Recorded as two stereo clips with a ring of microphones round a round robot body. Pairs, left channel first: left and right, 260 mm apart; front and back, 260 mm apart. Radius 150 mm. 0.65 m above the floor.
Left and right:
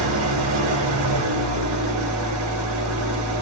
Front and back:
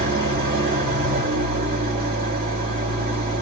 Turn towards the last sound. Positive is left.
turn(degrees=-110)